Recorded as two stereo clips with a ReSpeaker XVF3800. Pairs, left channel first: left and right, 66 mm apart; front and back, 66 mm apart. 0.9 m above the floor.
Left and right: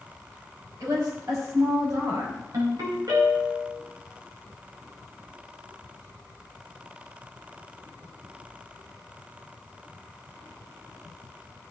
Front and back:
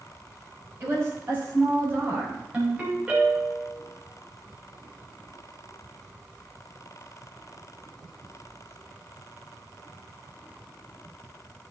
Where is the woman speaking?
125° right, 5.5 m.